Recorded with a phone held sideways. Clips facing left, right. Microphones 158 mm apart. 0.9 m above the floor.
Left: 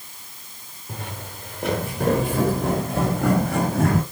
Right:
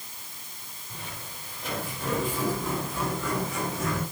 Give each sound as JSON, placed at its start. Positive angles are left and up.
{"t": 0.9, "sound": "footsteps", "side_deg": 80, "distance_m": 6.0}